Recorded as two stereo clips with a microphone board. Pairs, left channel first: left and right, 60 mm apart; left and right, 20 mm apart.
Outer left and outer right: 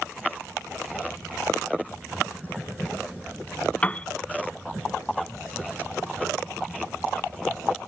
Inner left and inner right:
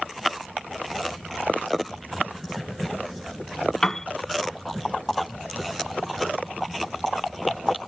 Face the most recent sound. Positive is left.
turn(degrees=20)  # may be behind; listen again after turning